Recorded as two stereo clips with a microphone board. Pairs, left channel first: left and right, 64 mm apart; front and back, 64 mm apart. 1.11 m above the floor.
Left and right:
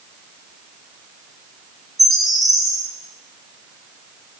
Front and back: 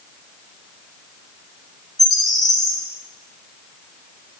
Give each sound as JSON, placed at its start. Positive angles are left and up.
{"t": 2.0, "sound": "a bird", "azimuth_deg": 0, "distance_m": 2.5}